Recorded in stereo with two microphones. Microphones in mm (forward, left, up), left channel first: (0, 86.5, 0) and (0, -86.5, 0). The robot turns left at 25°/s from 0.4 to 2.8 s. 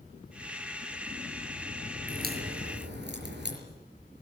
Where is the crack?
50° right (ahead or behind), 5.5 m; by 3.6 s 70° right (ahead or behind), 5.5 m.